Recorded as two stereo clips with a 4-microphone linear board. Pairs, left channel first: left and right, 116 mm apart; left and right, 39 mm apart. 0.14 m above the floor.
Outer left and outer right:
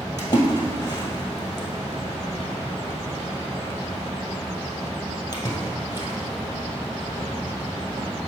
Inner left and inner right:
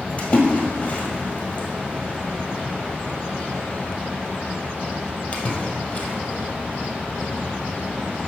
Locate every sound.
0.2 s a splash: 35° left (ahead or behind), 1.7 m